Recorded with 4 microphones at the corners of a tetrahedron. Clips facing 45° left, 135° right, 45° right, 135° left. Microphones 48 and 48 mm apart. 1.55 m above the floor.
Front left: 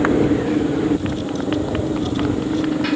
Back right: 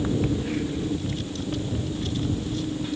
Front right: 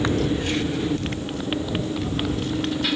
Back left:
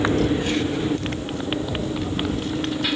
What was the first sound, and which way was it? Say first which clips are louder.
A motorcycle: front left 9 dB, back left 2 dB; 60° left.